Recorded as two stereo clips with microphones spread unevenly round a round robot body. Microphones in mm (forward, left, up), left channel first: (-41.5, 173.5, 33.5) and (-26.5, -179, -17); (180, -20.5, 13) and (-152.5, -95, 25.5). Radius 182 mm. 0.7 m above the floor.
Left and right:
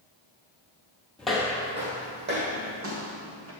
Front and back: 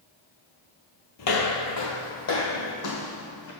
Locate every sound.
1.2 s footsteps: 15° left, 0.8 m; by 3.5 s 35° right, 2 m